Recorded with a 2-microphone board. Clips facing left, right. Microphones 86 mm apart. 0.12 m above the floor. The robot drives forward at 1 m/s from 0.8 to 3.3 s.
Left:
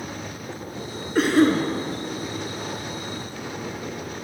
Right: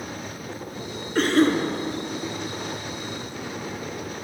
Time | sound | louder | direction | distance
1.1 | a cough | left 1 dB | 5° left (ahead or behind) | 1.2 m